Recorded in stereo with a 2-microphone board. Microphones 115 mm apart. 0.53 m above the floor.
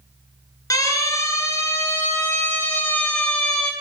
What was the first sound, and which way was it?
A siren, 30° left (ahead or behind).